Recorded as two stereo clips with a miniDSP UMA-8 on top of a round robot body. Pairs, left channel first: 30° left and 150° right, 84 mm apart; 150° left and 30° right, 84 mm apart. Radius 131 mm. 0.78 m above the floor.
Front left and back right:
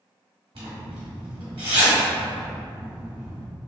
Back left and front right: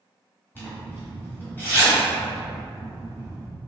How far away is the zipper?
About 1.4 m.